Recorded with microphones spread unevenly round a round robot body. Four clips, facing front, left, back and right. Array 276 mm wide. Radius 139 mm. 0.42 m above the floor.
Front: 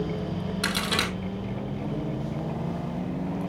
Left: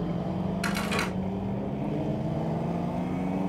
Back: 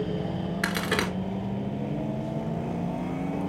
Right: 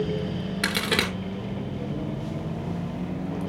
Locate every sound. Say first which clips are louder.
0.6 s a crack: right 5 dB, back 2 dB; 110° right, 1.7 m